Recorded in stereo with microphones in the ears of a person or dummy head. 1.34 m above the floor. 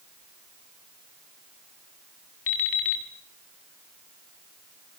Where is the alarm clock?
55° left (ahead or behind), 2.0 m.